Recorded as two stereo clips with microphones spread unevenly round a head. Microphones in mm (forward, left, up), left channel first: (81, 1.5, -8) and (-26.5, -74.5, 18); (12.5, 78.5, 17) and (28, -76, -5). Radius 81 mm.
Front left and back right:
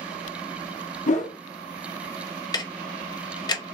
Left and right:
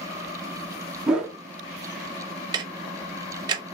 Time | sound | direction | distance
1.1 | a whoosh | 5° left | 1.0 m
2.5 | ticking | 25° right | 0.6 m